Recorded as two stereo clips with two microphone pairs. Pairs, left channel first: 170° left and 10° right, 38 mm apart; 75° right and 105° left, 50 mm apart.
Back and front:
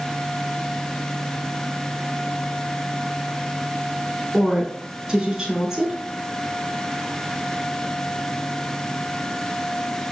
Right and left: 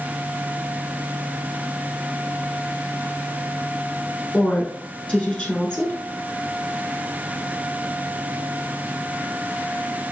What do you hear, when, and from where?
4.3 s a woman speaking: 50° right, 1.2 m